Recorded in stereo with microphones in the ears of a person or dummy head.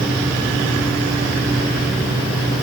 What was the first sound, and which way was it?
Only background noise.